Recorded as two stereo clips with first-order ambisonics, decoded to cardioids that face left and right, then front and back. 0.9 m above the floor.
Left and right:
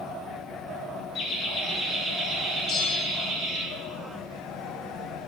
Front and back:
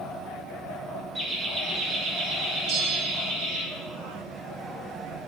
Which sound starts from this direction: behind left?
A bell, at 2.7 s.